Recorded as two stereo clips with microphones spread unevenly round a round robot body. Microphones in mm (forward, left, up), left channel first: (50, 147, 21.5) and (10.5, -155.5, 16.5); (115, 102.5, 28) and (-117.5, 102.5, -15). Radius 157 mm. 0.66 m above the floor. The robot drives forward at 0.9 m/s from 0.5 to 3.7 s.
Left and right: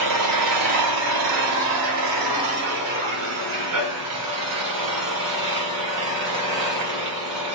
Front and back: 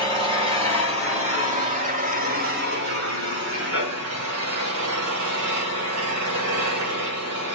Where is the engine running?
80° right, 2 m; by 7.5 s 140° right, 3.5 m.